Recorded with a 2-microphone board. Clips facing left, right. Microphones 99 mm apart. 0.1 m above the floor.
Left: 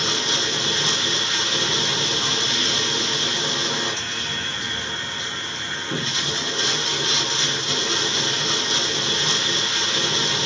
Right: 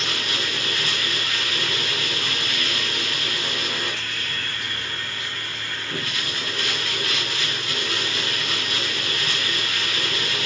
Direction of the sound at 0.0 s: 25° left (ahead or behind).